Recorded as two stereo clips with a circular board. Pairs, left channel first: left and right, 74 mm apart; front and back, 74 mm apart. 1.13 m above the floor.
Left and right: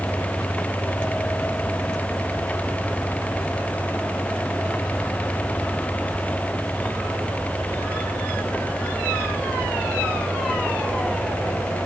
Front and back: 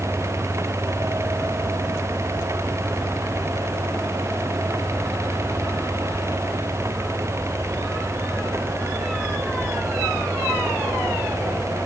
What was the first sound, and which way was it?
Only background noise.